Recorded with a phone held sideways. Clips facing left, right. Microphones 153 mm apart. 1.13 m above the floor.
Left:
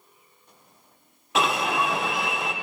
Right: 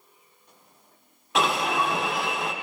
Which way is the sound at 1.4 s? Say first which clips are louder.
Even; centre (ahead or behind).